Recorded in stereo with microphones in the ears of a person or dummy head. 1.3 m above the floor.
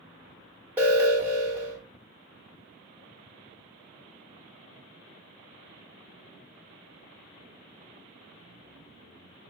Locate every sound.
0.8 s an alarm: 10° right (ahead or behind), 1.4 m